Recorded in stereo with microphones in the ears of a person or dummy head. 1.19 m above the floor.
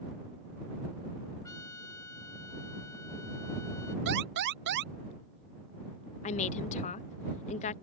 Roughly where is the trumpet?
Centre.